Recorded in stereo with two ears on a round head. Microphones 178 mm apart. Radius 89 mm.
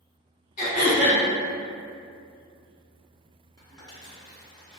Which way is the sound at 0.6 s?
40° left (ahead or behind).